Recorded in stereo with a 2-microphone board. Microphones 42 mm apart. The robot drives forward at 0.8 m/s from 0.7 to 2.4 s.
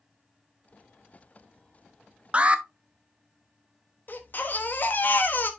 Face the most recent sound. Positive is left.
turn(degrees=45)  # may be behind; listen again after turning